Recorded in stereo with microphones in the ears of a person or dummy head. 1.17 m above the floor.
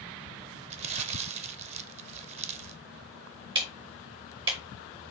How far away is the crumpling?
About 0.6 m.